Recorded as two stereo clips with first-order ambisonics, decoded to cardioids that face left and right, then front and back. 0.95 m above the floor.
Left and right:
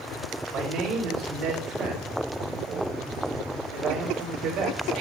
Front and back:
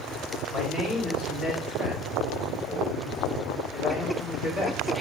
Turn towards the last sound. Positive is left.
turn(degrees=-115)